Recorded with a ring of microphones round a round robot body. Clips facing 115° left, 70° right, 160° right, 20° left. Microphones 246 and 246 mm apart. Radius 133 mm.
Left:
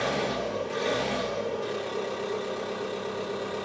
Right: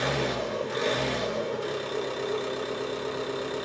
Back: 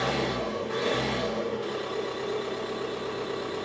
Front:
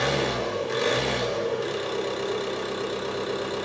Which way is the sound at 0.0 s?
Straight ahead.